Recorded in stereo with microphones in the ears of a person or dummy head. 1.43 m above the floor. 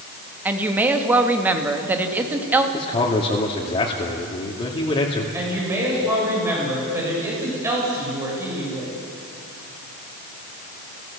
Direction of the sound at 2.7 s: 35° left (ahead or behind).